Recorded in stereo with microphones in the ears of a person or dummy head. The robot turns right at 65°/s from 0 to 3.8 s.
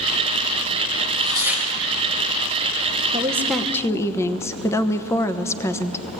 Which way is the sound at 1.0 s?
30° right.